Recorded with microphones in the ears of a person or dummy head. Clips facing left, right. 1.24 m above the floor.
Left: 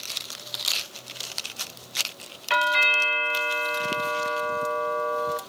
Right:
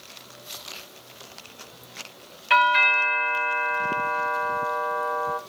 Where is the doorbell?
Centre (ahead or behind), 0.9 m.